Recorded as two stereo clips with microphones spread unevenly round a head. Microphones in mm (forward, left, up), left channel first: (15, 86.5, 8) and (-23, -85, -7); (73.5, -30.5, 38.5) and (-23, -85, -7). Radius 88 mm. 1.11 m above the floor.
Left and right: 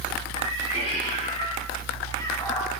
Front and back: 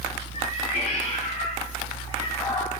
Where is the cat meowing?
25° left, 3.5 m; by 2.7 s 5° left, 1.5 m.